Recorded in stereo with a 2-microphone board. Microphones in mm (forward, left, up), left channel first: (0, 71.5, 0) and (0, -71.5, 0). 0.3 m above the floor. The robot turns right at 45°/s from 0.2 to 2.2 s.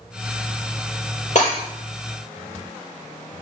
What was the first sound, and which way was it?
Breaking glass, 55° left (ahead or behind).